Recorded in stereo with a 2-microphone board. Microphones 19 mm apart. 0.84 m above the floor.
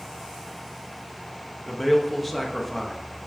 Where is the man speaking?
5° left (ahead or behind), 0.5 m.